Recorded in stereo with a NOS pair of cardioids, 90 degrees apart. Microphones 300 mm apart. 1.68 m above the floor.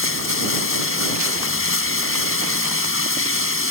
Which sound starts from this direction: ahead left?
Running water, at 0.0 s.